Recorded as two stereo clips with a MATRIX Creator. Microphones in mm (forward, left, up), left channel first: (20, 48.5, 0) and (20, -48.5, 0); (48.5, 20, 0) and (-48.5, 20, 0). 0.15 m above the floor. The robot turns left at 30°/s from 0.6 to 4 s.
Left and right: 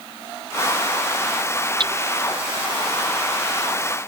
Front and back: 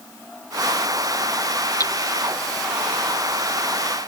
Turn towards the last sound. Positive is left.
turn(degrees=-120)